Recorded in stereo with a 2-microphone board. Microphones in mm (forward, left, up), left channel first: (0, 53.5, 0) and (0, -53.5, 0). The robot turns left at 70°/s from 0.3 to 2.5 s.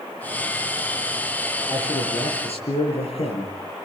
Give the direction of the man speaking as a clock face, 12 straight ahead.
8 o'clock.